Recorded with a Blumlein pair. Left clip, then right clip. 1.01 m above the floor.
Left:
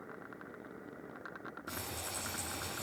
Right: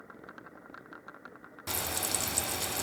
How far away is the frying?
About 0.9 m.